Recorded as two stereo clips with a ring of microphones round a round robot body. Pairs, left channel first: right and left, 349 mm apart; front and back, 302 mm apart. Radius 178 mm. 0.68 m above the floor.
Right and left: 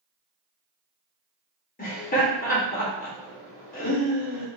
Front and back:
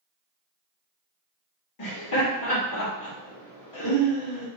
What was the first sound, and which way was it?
Laughter, 25° right.